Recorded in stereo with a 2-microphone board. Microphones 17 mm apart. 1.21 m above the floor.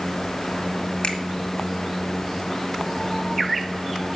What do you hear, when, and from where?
1.0 s a finger snap: 70° left (ahead or behind), 2 m